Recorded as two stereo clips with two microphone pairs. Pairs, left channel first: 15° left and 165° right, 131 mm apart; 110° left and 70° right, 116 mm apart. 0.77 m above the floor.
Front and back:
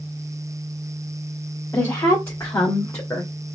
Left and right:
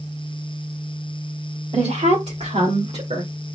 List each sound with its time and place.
1.7 s a woman speaking: 55° right, 2.5 m